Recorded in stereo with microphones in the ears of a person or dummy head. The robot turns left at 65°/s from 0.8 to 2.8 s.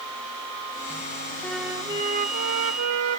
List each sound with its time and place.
1.4 s a flute: 5° left; by 3.2 s 85° right